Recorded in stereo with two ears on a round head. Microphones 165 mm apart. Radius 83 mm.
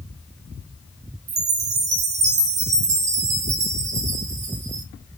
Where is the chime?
35° right (ahead or behind), 0.9 m.